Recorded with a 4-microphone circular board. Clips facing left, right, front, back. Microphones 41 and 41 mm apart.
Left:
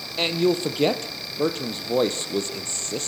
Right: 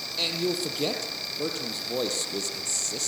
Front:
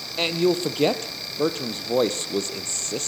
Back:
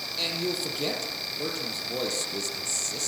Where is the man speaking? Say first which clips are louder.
Left 7 dB, front 9 dB; 40° left, 2.5 m.